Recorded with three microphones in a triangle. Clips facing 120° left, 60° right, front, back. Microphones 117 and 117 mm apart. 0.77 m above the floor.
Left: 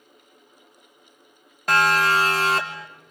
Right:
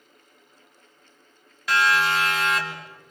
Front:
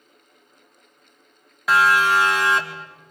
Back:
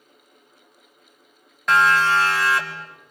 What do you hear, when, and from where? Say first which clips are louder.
1.7 s a siren: left 2 dB, even; 85° left, 2.5 m; by 2.9 s 65° left, 2.5 m